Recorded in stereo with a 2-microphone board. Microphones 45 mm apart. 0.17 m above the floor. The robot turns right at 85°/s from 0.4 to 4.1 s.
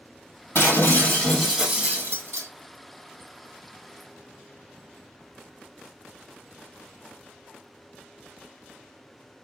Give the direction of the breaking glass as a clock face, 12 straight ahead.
9 o'clock.